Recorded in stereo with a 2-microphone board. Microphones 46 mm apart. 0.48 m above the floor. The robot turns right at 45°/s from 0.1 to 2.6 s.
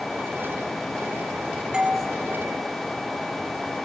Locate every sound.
1.7 s a doorbell: 20° right (ahead or behind), 1.9 m; by 2.0 s 30° right (ahead or behind), 1.9 m